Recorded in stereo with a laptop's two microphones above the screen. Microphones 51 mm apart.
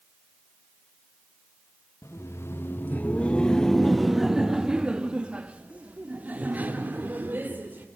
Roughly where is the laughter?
Left.